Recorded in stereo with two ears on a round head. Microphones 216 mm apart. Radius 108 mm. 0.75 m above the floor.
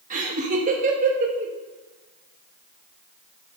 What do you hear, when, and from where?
0.1 s laughter: 30° right (ahead or behind), 1.1 m